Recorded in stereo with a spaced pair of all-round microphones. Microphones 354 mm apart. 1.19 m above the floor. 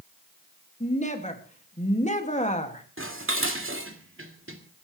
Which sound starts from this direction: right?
Dishes clattering, at 3.0 s.